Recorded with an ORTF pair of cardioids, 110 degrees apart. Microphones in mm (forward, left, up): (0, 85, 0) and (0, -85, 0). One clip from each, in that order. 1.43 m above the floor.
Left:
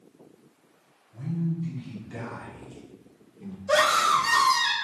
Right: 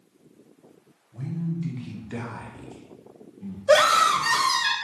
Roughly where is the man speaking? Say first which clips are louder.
Left 1 dB; right.